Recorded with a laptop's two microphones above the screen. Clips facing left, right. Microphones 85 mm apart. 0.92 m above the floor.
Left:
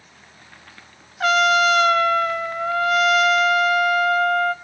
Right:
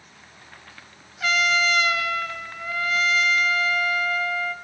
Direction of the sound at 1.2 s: 55° left (ahead or behind).